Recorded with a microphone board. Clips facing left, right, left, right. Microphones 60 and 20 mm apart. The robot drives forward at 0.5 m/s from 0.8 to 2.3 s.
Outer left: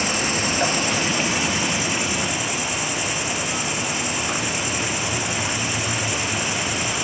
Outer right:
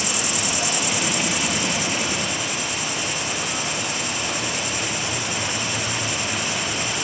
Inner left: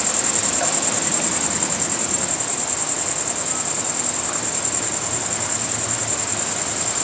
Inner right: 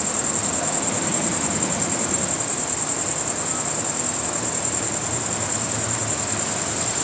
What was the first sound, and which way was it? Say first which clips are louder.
An insect: outer left 3 dB, inner left 3 dB; 40° left (ahead or behind).